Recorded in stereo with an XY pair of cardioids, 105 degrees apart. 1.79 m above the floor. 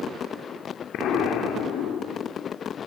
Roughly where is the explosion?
Left.